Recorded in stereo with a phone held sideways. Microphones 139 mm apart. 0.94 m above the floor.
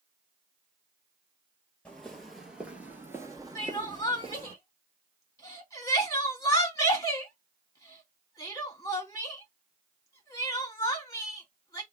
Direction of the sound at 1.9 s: 10° left (ahead or behind).